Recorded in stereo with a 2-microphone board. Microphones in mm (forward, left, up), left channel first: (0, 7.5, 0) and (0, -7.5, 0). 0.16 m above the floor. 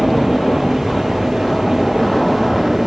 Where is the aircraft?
30° left (ahead or behind); by 2.9 s 15° left (ahead or behind).